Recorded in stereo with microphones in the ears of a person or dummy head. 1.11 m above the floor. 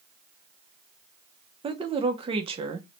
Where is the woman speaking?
30° right (ahead or behind), 0.6 m.